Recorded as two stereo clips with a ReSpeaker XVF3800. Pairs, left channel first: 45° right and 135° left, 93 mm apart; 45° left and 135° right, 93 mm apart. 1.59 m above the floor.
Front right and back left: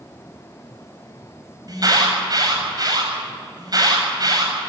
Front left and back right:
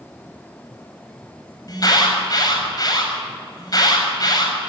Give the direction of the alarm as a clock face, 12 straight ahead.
9 o'clock.